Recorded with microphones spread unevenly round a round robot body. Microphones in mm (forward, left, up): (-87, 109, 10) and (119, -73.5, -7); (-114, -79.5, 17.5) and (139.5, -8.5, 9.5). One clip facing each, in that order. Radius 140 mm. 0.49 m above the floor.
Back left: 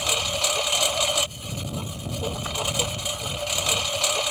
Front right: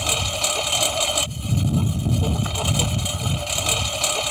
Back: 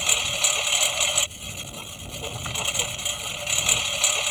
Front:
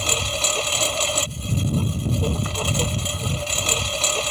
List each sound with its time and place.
0.0 s a lawn mower: 30° right